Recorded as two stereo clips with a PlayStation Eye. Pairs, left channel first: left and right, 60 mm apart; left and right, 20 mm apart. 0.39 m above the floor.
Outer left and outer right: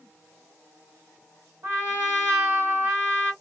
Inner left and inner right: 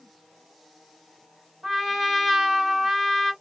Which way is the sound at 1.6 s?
40° right (ahead or behind).